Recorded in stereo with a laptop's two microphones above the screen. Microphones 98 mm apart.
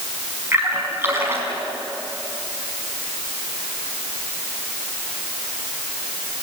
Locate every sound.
0.5 s a splash: 25° right (ahead or behind), 5.5 m